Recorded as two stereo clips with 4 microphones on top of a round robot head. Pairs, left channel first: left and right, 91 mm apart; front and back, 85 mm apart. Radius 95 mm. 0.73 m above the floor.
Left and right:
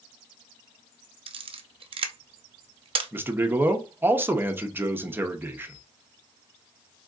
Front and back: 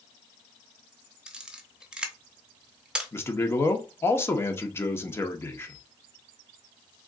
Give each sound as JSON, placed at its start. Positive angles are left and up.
{"t": 1.3, "sound": "a camera shutter", "azimuth_deg": -100, "distance_m": 0.6}
{"t": 3.1, "sound": "a man speaking", "azimuth_deg": -35, "distance_m": 0.9}